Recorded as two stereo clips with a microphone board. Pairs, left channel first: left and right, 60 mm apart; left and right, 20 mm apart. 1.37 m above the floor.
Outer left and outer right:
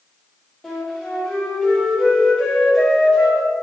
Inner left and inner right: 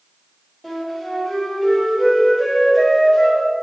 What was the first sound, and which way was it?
A flute, 5° left (ahead or behind).